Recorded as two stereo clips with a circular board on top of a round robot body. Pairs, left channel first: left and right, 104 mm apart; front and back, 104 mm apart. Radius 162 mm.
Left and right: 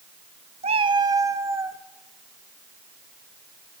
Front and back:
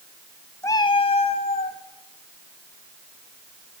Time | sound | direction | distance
0.6 | a cat meowing | 70° right | 0.5 m